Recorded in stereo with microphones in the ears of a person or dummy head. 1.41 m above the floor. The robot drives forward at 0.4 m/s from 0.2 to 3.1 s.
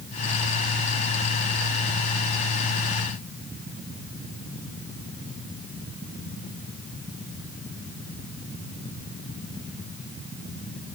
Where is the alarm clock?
I don't hear an alarm clock.